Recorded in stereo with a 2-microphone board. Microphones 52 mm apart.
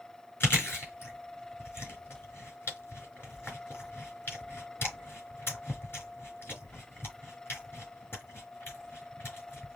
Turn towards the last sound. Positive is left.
turn(degrees=45)  # may be behind; listen again after turning